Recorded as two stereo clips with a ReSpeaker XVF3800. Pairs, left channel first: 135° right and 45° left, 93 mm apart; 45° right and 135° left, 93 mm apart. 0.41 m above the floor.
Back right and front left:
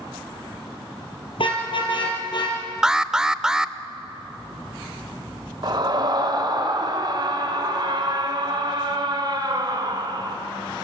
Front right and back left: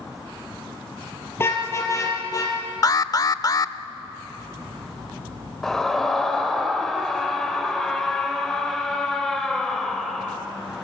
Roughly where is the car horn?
Right.